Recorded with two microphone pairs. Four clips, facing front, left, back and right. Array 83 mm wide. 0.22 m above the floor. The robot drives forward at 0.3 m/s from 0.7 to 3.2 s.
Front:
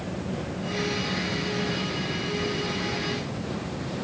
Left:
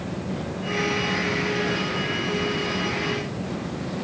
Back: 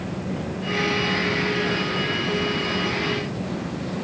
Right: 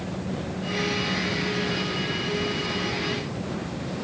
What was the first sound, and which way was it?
Only background noise.